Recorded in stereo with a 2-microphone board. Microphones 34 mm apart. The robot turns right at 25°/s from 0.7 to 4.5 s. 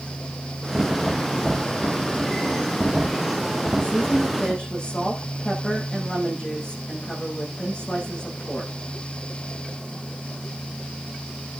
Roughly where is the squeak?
I don't hear a squeak.